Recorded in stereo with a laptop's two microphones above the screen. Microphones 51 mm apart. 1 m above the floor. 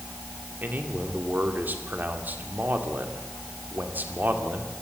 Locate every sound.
0.6 s a man speaking: 40° right (ahead or behind), 2 m